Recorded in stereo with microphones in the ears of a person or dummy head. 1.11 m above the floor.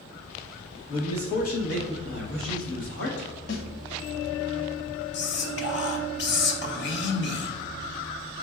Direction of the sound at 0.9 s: 30° left (ahead or behind).